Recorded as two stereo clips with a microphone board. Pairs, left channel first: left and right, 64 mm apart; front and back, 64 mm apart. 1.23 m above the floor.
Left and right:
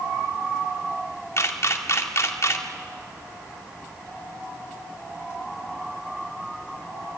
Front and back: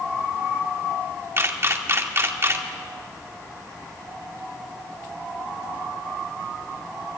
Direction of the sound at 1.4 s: 130° left.